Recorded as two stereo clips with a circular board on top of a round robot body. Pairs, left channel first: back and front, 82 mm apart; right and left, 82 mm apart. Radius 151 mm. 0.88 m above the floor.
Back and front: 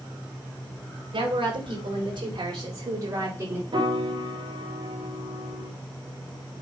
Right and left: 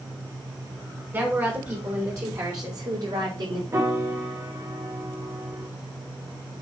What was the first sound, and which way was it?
A woman speaking, 20° left.